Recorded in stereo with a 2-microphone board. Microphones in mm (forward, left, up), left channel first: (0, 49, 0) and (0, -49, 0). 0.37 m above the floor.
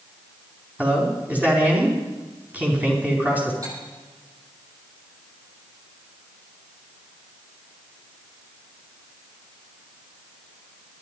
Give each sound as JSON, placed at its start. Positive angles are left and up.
{"t": 0.8, "sound": "a man speaking", "side_deg": -15, "distance_m": 4.0}
{"t": 3.6, "sound": "cutlery clinking", "side_deg": -35, "distance_m": 9.0}